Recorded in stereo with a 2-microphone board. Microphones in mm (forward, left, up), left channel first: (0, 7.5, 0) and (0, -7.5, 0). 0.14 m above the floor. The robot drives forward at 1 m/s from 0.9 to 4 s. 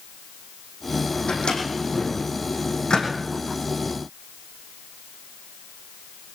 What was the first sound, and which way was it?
A microwave, 80° left.